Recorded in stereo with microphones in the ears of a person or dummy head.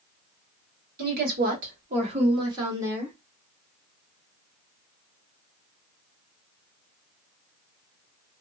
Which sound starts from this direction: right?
A woman speaking, at 1.0 s.